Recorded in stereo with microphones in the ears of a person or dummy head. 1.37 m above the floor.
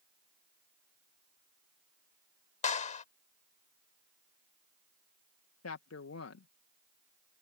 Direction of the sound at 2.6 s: 40° left (ahead or behind).